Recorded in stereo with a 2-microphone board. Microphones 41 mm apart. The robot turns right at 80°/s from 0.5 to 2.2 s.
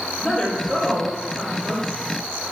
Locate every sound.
0.2 s a woman speaking: 15° left (ahead or behind), 0.8 m; by 1.8 s 25° right (ahead or behind), 0.8 m